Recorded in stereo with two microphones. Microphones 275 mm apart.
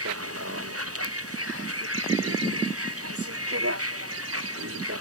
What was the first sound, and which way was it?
A vehicle, 55° right (ahead or behind).